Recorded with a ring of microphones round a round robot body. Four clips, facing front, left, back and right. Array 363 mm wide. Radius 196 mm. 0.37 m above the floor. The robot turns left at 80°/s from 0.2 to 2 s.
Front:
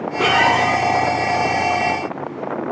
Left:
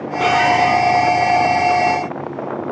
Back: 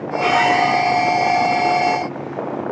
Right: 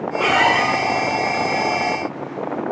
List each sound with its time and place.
0.2 s a squeak: 5° left, 8.5 m; by 0.7 s 35° right, 8.5 m